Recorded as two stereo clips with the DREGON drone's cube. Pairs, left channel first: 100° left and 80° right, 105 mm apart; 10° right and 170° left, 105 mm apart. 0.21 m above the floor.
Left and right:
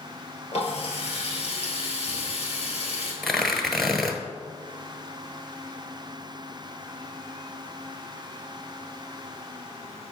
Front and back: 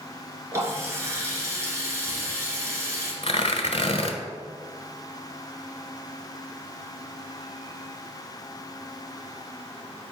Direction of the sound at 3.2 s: 10° left.